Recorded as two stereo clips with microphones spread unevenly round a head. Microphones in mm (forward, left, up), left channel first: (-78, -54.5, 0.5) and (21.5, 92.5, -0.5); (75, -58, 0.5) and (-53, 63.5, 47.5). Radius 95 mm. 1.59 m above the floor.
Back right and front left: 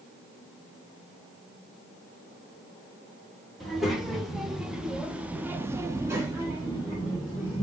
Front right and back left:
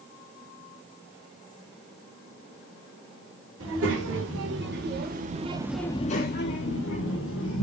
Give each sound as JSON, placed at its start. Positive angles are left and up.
{"t": 3.6, "sound": "a child speaking", "azimuth_deg": 145, "distance_m": 2.0}